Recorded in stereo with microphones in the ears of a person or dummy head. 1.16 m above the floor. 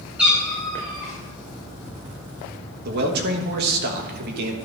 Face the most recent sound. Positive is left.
turn(degrees=-60)  # may be behind; listen again after turning